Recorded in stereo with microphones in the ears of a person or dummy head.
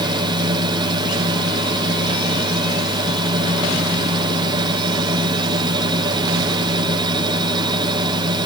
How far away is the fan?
About 2.5 m.